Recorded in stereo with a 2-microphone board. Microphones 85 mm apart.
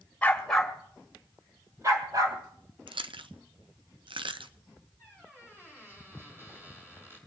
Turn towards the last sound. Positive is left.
turn(degrees=-25)  # may be behind; listen again after turning